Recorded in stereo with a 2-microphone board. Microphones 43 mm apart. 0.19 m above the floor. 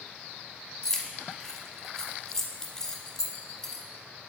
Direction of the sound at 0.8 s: 15° left (ahead or behind).